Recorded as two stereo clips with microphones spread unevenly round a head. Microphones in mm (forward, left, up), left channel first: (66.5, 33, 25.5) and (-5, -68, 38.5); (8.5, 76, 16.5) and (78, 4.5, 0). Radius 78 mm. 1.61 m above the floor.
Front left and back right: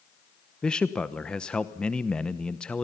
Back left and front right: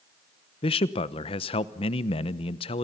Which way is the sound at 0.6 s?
145° left.